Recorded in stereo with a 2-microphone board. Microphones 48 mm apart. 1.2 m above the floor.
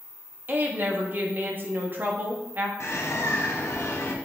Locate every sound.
0.5 s a woman speaking: 40° right (ahead or behind), 1.5 m
2.8 s a bird: 60° left (ahead or behind), 1.3 m